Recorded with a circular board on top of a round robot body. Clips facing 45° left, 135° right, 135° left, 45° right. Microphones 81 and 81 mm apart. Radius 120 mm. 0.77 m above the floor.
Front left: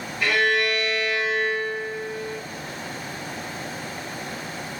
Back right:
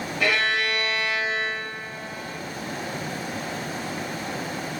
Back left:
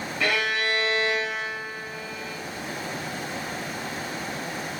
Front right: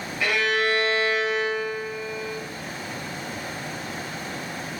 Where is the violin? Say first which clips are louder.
Front left 3 dB, front right 3 dB; 130° right, 0.9 m.